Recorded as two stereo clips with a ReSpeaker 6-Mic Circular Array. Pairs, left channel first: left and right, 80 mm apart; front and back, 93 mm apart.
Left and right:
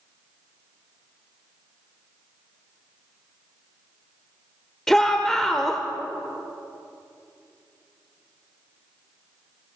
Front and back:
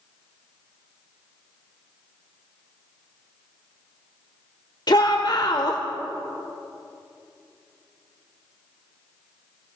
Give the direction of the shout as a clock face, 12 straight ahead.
12 o'clock.